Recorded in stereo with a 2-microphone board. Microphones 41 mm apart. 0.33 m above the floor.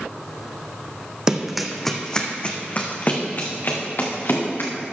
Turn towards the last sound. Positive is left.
turn(degrees=60)  # may be behind; listen again after turning